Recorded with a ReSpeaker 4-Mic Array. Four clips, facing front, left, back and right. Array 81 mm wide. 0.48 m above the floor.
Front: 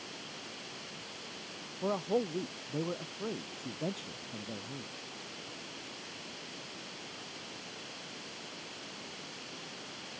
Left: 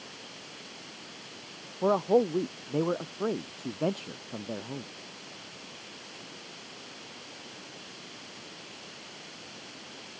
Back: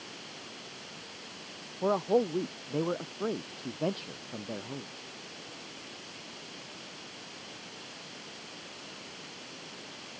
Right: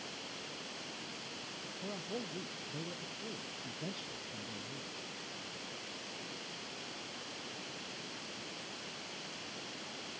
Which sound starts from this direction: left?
A man speaking, at 1.8 s.